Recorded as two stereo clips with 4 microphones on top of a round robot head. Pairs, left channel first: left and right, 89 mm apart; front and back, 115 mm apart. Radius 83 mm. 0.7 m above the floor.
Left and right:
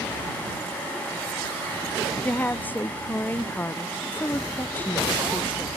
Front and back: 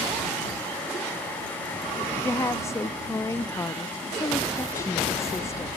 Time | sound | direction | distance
2.2 | a woman speaking | 40° left | ?